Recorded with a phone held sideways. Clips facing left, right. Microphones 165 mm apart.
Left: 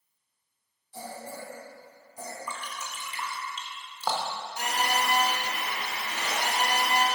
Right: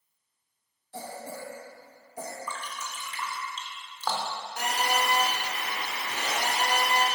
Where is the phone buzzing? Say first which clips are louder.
Right 1 dB; 60° right (ahead or behind), 2.5 m.